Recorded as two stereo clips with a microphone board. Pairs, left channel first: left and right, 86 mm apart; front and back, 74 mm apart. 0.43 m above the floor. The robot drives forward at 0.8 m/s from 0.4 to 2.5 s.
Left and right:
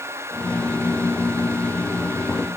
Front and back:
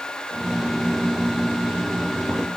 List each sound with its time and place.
Only background noise.